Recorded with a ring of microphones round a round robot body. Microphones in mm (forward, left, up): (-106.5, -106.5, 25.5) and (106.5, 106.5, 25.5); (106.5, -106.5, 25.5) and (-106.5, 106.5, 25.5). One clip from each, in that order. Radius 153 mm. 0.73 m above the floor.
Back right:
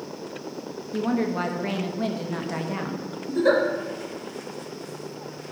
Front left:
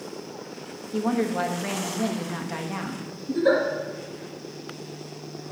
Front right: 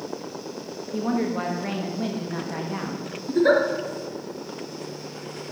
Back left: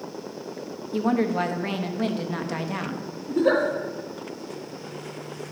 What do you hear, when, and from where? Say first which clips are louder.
0.9 s a woman speaking: front left 1 dB, back left 3 dB; 130° left, 1.0 m
3.3 s a giggle: back right 1 dB, front right 2 dB; 50° right, 3 m